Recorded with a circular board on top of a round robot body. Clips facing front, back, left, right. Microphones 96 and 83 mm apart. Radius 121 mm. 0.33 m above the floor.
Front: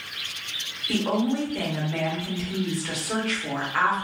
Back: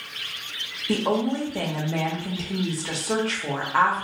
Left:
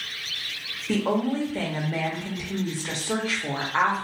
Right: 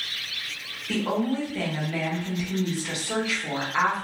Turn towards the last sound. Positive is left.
turn(degrees=135)